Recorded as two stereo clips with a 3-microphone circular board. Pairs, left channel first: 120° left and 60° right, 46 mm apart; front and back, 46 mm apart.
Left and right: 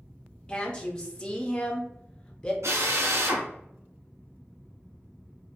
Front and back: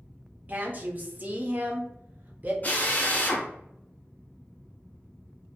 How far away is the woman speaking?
About 0.5 m.